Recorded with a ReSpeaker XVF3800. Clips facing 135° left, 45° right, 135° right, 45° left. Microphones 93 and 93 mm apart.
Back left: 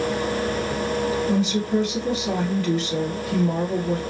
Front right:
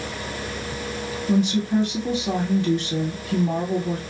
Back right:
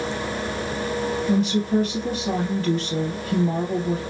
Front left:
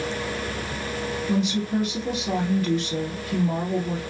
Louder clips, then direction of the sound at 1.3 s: Front right 1 dB, back right 3 dB; 100° right.